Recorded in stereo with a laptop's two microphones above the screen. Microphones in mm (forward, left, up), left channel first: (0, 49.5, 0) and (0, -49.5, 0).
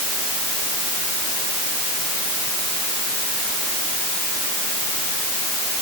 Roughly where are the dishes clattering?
No dishes clattering in this recording.